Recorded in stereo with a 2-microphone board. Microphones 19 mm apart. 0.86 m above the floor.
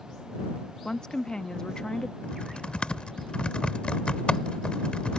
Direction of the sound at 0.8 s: 40° left (ahead or behind).